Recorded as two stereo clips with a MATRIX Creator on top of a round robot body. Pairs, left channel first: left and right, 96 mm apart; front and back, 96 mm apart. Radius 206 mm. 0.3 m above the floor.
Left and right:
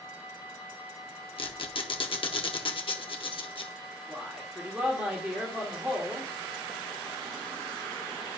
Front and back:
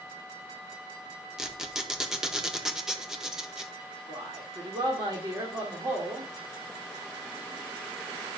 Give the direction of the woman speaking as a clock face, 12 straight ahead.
5 o'clock.